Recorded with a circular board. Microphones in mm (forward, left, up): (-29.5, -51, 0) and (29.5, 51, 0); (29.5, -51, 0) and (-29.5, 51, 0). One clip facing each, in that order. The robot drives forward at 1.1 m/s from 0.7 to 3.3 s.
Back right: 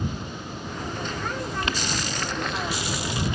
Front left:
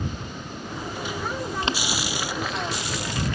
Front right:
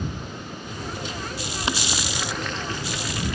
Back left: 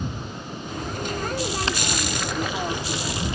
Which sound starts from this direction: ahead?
Boiling, at 1.6 s.